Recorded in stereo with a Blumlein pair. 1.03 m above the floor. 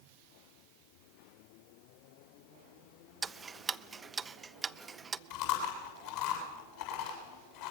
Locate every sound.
3.2 s ticking: 15° right, 0.6 m
5.3 s chewing: 50° left, 7.5 m